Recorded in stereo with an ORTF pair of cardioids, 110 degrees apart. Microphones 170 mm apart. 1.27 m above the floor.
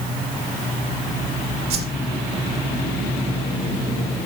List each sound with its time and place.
1.7 s a whoosh: 70° right, 1.2 m